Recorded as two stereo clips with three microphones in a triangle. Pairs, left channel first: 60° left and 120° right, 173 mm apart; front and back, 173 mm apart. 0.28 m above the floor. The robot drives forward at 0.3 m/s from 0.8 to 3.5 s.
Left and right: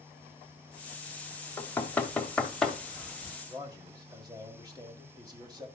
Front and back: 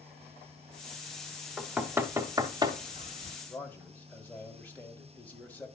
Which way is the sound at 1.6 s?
100° left.